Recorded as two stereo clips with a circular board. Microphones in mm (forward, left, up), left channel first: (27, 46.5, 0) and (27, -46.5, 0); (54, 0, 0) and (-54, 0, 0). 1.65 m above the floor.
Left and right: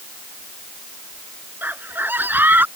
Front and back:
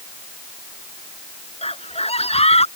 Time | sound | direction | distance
1.6 | a scream | 20° right | ?